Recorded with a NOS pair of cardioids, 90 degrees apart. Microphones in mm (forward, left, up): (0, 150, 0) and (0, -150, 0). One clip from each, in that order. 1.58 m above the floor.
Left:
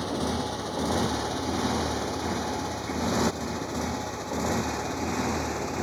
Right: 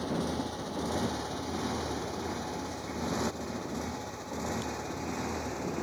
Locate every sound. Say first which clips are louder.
0.0 s a motorcycle: left 4 dB; 45° left; by 5.8 s 50° left